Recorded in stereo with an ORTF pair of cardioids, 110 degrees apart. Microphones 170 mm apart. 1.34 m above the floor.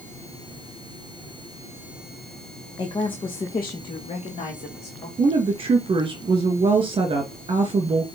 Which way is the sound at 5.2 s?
30° right.